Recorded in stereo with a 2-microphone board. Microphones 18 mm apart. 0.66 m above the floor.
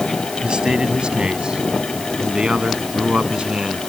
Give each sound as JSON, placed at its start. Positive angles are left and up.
{"t": 0.4, "sound": "a man speaking", "side_deg": -70}